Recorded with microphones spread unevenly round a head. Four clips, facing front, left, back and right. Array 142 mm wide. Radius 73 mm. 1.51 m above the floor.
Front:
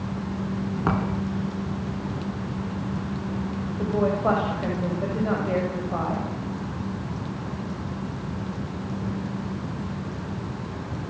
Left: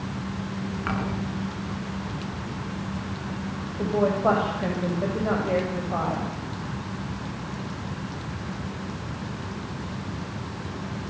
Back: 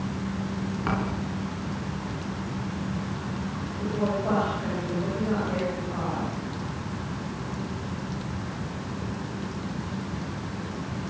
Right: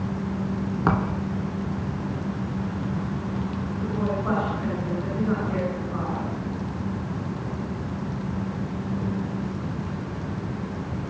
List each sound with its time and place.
0.9 s a thud: 60° right, 3 m
3.8 s a woman speaking: 55° left, 7.5 m